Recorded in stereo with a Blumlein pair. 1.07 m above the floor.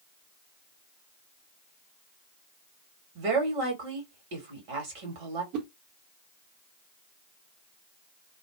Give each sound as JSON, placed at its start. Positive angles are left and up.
{"t": 3.1, "sound": "a woman speaking", "azimuth_deg": -45, "distance_m": 1.9}
{"t": 5.5, "sound": "a whoosh", "azimuth_deg": -40, "distance_m": 0.8}